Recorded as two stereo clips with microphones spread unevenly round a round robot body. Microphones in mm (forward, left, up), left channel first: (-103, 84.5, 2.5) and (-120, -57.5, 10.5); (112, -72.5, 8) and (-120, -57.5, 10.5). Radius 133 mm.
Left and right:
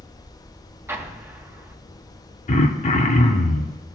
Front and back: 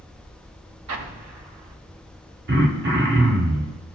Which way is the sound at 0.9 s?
170° right.